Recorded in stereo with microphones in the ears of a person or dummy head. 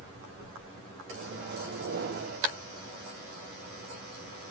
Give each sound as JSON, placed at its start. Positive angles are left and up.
{"t": 1.1, "sound": "a microwave", "side_deg": -60, "distance_m": 1.1}